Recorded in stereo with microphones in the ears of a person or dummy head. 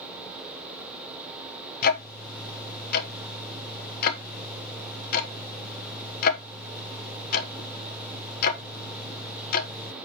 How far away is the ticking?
About 1.1 m.